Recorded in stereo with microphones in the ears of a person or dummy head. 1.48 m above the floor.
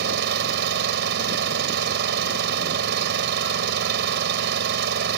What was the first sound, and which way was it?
An engine running, 65° right (ahead or behind).